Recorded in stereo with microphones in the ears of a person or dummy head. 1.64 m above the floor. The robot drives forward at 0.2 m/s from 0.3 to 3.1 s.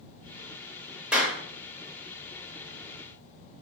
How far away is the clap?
About 0.8 m.